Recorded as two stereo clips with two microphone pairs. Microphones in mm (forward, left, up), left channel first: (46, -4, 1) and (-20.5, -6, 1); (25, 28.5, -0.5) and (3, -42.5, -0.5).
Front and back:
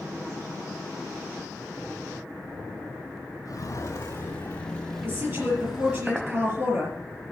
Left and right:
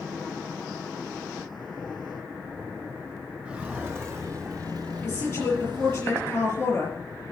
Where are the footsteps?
35° right, 2.5 m; by 6.0 s 105° right, 3 m.